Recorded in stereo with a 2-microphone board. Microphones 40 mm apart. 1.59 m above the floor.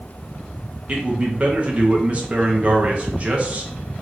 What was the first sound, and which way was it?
A man speaking, 30° right (ahead or behind).